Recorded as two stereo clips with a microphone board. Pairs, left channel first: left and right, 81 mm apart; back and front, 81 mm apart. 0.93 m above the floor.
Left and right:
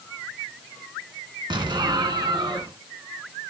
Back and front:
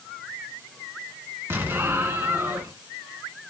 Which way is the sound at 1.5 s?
65° right.